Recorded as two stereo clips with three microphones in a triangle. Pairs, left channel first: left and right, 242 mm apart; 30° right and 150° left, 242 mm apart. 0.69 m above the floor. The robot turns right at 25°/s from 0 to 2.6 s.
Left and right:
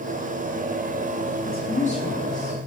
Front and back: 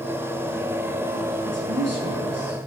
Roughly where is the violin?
I don't hear a violin.